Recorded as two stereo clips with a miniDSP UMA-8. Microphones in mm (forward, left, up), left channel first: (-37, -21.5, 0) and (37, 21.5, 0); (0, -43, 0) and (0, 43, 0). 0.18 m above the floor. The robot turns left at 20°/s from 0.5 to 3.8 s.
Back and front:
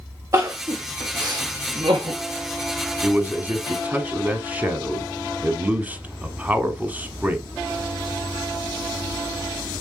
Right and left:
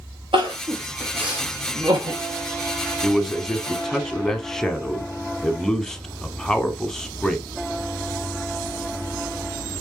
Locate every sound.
0.3 s crying: 80° left, 2.5 m; by 2.2 s 45° left, 2.5 m
3.0 s a man speaking: straight ahead, 1.0 m; by 7.5 s 15° right, 1.0 m